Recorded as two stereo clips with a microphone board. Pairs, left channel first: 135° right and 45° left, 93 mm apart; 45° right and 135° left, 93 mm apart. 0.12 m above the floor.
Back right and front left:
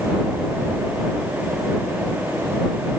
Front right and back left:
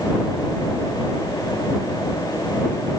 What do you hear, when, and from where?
Only background noise.